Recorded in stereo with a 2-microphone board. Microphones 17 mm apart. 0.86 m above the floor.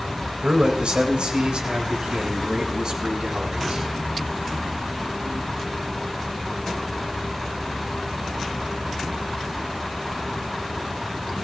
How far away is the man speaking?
About 4 m.